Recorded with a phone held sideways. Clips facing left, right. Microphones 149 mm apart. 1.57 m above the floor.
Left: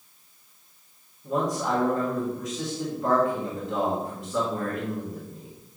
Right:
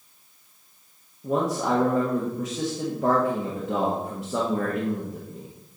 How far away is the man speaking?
About 1.6 m.